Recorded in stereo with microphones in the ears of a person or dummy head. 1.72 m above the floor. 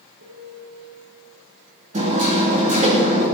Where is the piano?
65° right (ahead or behind), 3.5 m.